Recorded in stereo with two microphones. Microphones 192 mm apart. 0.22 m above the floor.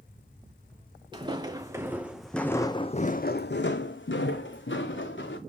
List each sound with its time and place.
1.1 s footsteps: 25° right (ahead or behind), 1.1 m; by 5.4 s 70° left (ahead or behind), 1.3 m